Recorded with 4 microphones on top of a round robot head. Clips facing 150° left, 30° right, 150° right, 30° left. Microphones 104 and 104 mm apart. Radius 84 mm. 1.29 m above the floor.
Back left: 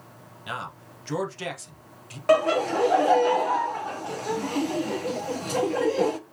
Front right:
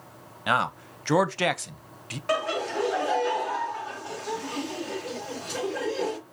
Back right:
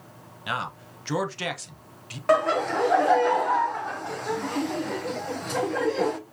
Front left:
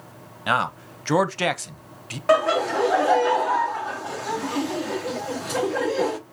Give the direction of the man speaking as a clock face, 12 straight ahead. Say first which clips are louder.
Front right 10 dB, front left 8 dB; 12 o'clock.